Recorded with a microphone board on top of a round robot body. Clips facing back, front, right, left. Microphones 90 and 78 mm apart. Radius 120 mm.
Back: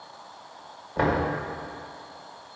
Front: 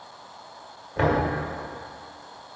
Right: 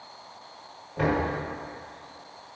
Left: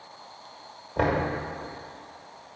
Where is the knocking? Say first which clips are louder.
Front 1 dB, left 1 dB; 105° left, 1.7 m.